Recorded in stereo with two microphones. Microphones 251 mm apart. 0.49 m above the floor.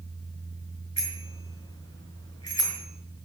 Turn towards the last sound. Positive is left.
turn(degrees=70)  # may be behind; listen again after turning